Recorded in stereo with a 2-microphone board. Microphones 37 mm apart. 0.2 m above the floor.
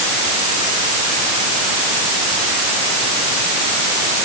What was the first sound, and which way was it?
Only background noise.